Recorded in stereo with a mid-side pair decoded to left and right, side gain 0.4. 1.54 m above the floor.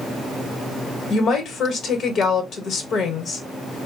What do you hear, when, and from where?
1.1 s a woman speaking: 65° left, 1.2 m